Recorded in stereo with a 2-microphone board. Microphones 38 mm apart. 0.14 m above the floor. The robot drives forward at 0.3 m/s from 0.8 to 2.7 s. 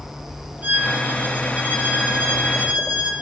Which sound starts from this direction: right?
A violin, at 0.6 s.